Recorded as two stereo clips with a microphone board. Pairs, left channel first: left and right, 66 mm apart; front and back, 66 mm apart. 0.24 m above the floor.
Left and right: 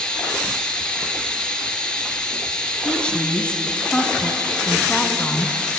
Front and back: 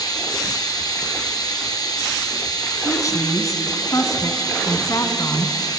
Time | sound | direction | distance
0.0 | running water | 15° left | 2.5 m
2.9 | a woman speaking | 20° left | 2 m